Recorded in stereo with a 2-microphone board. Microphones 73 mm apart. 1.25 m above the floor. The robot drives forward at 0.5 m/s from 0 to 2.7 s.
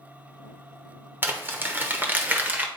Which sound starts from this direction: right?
Crumpling, at 1.2 s.